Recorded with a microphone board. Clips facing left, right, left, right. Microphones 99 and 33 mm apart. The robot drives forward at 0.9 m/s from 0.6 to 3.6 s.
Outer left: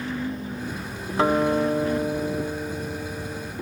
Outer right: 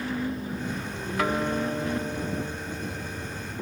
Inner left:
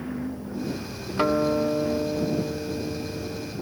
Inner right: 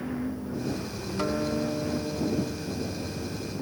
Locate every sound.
1.2 s a guitar: 30° left (ahead or behind); by 3.5 s 35° left (ahead or behind)